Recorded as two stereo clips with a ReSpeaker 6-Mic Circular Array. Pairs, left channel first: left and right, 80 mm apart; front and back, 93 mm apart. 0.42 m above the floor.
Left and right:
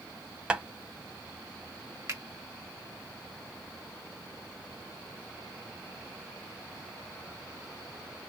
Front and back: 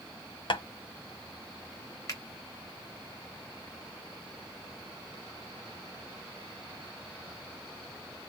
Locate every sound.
0.5 s tapping: 10° right, 0.6 m
2.1 s a finger snap: 45° right, 1.6 m